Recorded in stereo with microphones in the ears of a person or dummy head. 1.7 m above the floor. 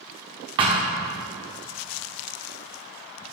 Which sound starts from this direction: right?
A thud, at 0.6 s.